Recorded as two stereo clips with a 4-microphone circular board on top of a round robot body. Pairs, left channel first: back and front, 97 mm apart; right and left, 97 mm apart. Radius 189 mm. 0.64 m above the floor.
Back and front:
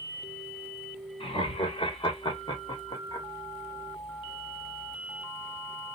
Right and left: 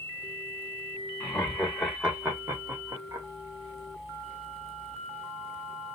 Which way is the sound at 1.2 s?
170° right.